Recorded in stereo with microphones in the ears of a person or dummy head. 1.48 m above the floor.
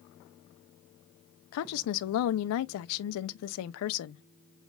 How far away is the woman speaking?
About 0.5 m.